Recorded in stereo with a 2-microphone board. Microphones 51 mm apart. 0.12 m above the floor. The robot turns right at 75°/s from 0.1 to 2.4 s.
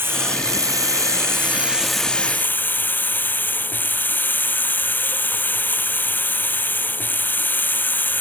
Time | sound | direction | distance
0.0 | running water | 140° right | ?